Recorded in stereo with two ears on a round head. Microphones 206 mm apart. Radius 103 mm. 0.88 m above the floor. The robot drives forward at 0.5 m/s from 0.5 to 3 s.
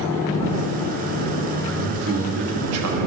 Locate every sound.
1.6 s a man speaking: 60° right (ahead or behind), 1.3 m; by 3.1 s 70° right (ahead or behind), 1.2 m